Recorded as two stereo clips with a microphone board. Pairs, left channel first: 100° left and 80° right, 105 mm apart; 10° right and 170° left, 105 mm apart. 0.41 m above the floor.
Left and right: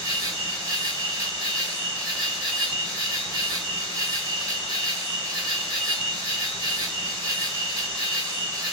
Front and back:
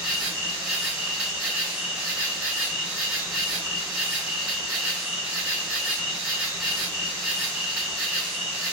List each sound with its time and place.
0.0 s an insect: 120° right, 1.6 m